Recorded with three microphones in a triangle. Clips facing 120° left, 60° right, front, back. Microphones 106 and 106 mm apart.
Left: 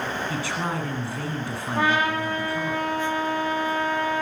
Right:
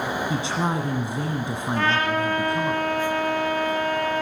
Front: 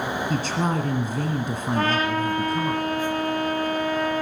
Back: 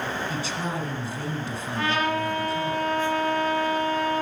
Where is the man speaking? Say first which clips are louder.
Right 3 dB, front 5 dB; straight ahead, 1.7 m.